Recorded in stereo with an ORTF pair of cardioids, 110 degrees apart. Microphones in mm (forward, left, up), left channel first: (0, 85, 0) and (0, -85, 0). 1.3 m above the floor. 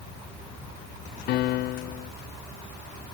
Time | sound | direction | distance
1.3 | a piano | 70° left | 0.6 m